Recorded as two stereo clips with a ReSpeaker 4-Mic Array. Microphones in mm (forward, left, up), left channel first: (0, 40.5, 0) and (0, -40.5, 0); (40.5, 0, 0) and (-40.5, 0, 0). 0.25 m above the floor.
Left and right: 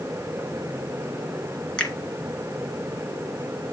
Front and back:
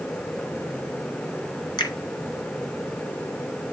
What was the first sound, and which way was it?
A finger snap, 15° left.